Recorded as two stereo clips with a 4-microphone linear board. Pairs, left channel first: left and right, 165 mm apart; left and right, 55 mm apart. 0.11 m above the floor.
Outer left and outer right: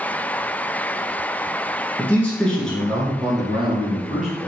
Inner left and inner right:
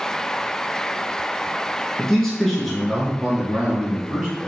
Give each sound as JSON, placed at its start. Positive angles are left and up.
{"t": 2.0, "sound": "a man speaking", "side_deg": 10, "distance_m": 1.2}